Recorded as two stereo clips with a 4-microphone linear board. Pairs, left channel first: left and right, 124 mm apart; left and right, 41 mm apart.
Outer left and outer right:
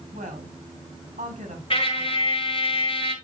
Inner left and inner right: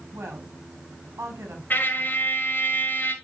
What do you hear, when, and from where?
0.1 s a woman speaking: 75° right (ahead or behind), 4 m
1.7 s a trumpet: 45° left (ahead or behind), 1.7 m